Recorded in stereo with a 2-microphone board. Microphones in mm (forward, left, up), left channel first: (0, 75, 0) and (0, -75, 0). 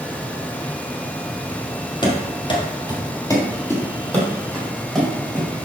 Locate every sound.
2.0 s running footsteps: 30° left (ahead or behind), 2 m; by 5.5 s centre (ahead or behind), 4 m